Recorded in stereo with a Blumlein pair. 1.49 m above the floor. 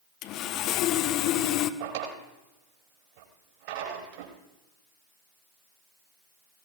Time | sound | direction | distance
0.2 | sawing | 40° left | 0.7 m
1.8 | a drawer | 50° right | 4 m